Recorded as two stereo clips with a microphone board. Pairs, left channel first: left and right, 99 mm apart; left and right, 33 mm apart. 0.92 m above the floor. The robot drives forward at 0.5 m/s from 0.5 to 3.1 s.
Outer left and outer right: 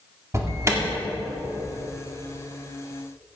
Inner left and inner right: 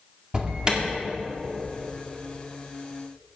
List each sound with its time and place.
0.3 s an alarm: 30° right (ahead or behind), 1.8 m